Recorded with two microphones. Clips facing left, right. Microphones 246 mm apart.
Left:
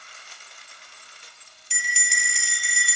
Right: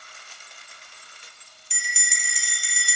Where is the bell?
75° left (ahead or behind), 0.9 m.